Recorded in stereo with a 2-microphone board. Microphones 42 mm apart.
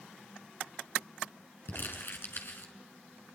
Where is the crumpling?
55° left (ahead or behind), 5.5 m.